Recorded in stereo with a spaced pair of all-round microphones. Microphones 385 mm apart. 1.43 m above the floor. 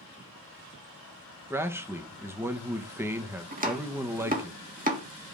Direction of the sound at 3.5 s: 20° right (ahead or behind).